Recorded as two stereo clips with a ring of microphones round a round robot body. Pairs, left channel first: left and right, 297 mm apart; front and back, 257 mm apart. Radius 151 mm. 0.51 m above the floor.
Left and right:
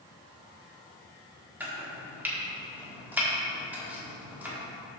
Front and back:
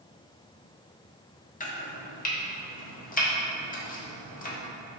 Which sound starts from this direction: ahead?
Chopping, at 1.6 s.